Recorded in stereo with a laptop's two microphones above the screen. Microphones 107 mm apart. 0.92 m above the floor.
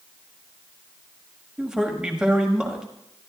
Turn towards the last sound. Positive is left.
turn(degrees=-5)  # may be behind; listen again after turning